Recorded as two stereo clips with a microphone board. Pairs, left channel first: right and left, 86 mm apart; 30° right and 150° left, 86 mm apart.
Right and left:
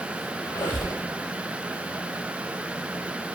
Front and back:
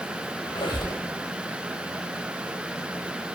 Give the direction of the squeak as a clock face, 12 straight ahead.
1 o'clock.